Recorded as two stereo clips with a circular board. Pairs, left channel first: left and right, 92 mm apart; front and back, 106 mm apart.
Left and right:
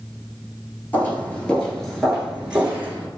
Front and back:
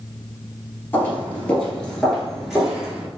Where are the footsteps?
50° left, 1.6 m; by 3.1 s 120° right, 1.5 m.